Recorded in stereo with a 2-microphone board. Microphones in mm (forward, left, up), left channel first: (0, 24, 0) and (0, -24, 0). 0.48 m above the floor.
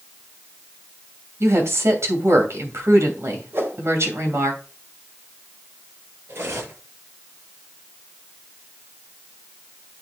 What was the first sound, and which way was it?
A woman speaking, 70° right (ahead or behind).